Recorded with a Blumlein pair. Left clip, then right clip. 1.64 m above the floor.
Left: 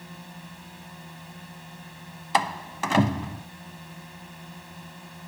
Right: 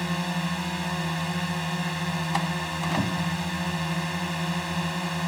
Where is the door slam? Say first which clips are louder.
Left 7 dB; 70° left.